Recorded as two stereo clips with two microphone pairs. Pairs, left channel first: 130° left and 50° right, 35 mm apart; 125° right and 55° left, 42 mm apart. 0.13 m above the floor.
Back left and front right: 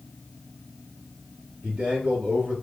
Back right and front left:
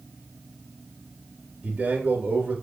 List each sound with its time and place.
1.6 s a man speaking: 5° right, 2.5 m